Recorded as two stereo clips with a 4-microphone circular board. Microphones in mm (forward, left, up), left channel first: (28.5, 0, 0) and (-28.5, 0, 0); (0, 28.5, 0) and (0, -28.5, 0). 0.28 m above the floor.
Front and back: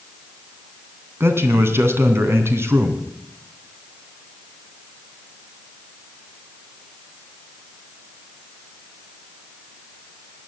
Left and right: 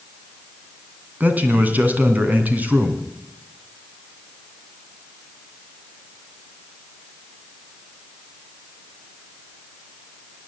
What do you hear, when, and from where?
1.2 s a man speaking: 145° right, 2.5 m